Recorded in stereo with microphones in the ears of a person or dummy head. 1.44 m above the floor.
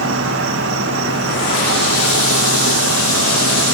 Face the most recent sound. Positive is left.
turn(degrees=-60)  # may be behind; listen again after turning